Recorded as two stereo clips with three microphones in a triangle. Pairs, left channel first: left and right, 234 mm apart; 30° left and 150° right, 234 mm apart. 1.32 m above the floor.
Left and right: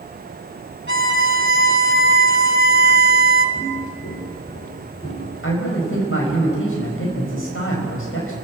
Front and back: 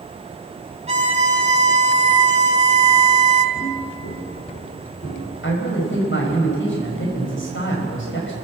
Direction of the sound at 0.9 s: 95° right.